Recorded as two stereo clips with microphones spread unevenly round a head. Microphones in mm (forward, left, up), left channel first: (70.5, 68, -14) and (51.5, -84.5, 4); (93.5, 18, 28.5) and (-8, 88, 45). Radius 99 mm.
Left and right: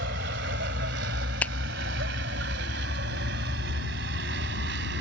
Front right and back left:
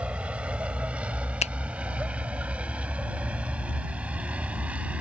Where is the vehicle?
130° right.